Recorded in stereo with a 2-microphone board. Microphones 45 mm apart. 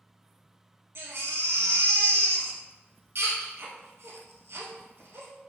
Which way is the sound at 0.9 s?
65° right (ahead or behind).